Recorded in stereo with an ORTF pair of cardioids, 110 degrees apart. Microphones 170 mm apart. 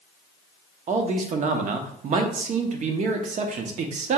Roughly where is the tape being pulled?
No tape being pulled in this recording.